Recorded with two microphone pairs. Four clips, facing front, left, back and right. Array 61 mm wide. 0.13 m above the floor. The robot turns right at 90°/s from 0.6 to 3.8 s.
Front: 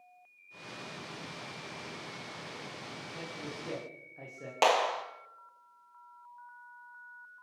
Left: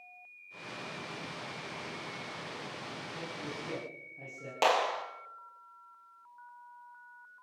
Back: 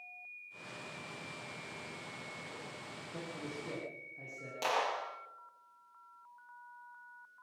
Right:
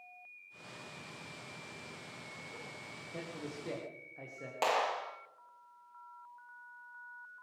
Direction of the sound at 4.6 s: Straight ahead.